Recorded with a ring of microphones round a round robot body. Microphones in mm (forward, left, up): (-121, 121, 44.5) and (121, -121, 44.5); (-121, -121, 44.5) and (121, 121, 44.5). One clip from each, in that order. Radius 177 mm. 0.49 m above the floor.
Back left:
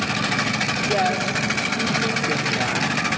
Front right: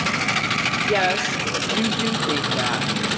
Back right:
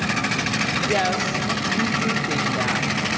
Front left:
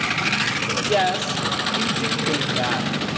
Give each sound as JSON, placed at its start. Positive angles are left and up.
{"t": 0.9, "sound": "a woman speaking", "azimuth_deg": -40, "distance_m": 1.4}